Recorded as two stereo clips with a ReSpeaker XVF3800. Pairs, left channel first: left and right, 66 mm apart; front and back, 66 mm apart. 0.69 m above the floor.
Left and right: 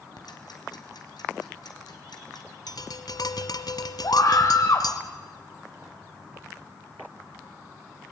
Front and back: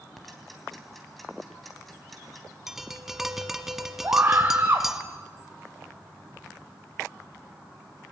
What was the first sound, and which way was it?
Ticking, 90° left.